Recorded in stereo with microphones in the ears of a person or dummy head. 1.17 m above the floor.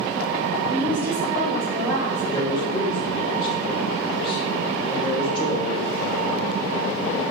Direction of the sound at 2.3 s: 25° left (ahead or behind).